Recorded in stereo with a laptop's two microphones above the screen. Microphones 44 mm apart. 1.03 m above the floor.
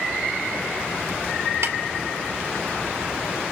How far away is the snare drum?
About 2.5 m.